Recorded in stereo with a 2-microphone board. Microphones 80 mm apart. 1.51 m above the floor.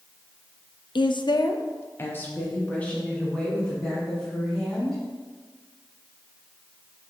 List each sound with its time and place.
0.9 s a woman speaking: 70° left (ahead or behind), 0.7 m; by 5.0 s 10° left (ahead or behind), 5.5 m